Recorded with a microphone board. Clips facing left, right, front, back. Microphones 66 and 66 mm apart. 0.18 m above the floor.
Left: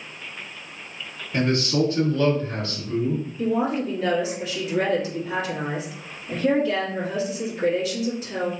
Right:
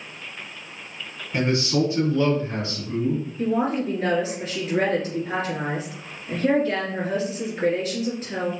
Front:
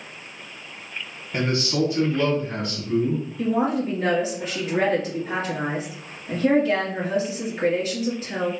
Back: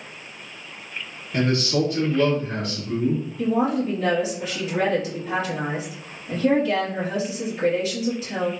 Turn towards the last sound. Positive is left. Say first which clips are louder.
# even, back 1 dB
turn(degrees=-45)